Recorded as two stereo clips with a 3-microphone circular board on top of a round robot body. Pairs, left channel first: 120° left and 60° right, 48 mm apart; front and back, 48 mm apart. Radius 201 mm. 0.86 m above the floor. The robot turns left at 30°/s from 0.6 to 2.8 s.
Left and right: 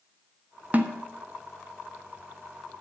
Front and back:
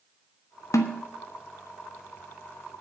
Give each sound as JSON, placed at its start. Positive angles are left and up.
{"t": 0.7, "sound": "a snare drum", "azimuth_deg": 0, "distance_m": 1.4}